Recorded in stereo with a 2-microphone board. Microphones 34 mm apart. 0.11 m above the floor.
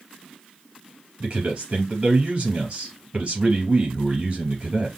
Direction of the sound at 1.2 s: 40° right (ahead or behind).